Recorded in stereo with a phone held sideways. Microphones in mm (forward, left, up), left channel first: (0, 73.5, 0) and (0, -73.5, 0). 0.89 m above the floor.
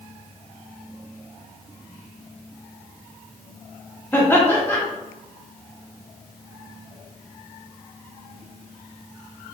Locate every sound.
4.1 s laughter: 15° left (ahead or behind), 1.2 m